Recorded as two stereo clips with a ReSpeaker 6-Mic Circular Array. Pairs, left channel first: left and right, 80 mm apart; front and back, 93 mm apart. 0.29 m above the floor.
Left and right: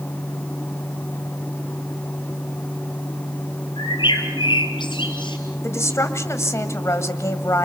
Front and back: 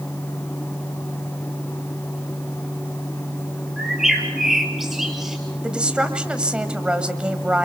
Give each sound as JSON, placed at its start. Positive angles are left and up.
{"t": 3.8, "sound": "a bird", "azimuth_deg": 95, "distance_m": 3.5}
{"t": 5.6, "sound": "a woman speaking", "azimuth_deg": 110, "distance_m": 1.7}